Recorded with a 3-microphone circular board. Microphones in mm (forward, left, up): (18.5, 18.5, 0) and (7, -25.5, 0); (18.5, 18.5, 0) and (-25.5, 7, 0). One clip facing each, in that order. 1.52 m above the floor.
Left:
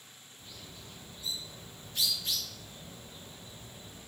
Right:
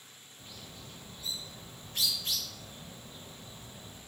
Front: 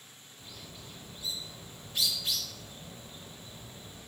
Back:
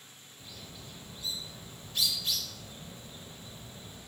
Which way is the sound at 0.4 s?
55° right.